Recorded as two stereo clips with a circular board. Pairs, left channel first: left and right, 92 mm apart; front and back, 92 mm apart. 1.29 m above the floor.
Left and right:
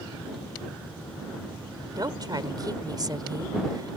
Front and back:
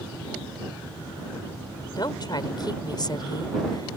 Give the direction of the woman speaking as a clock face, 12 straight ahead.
2 o'clock.